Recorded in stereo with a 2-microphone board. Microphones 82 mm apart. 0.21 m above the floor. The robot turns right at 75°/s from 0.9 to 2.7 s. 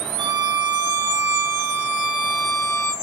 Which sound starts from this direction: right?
A violin, at 0.2 s.